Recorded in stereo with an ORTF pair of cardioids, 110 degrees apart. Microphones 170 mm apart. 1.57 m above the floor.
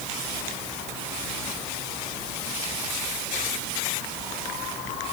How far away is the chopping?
No chopping in this recording.